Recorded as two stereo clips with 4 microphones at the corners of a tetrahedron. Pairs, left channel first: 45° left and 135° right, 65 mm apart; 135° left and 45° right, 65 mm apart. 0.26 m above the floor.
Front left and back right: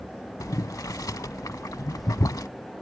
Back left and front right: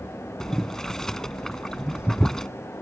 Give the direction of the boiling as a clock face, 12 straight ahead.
10 o'clock.